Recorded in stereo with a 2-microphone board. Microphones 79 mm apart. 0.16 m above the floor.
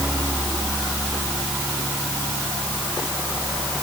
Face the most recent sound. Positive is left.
No sound to turn to.